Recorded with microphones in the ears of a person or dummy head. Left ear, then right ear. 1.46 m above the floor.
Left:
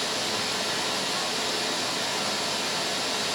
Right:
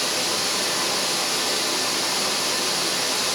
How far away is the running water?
About 1.4 m.